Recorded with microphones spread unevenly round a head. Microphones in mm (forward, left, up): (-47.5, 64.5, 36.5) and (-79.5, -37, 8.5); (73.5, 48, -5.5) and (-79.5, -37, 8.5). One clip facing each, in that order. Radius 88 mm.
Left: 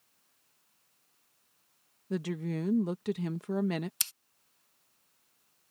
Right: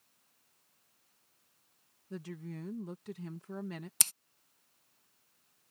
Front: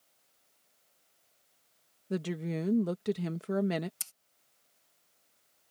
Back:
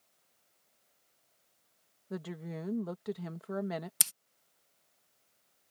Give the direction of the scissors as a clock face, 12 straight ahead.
5 o'clock.